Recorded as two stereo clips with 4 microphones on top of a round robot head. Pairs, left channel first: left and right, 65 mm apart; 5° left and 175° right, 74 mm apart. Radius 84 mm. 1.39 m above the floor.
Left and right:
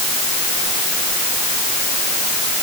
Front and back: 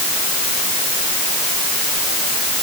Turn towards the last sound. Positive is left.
No sound to turn to.